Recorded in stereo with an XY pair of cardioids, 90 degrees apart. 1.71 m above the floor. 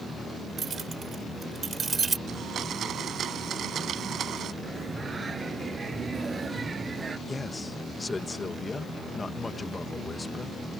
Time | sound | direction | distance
0.6 | keys jangling | 55° right | ?
2.3 | a blender | 70° right | ?
4.6 | singing | 40° right | ?
7.3 | a man speaking | 25° left | ?